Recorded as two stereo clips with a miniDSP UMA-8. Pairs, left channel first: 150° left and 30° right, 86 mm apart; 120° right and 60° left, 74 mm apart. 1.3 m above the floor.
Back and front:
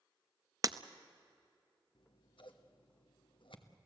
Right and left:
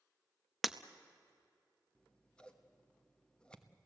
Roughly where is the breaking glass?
Ahead right.